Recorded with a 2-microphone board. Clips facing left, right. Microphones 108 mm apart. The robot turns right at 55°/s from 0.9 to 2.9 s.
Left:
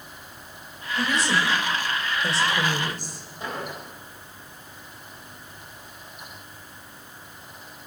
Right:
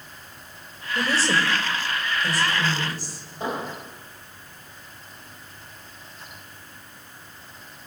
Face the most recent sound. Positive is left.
turn(degrees=-25)  # may be behind; listen again after turning